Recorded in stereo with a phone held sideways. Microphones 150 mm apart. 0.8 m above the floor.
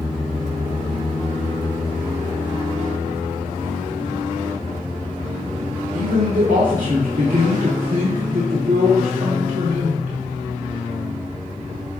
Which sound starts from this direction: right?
A man speaking, at 5.9 s.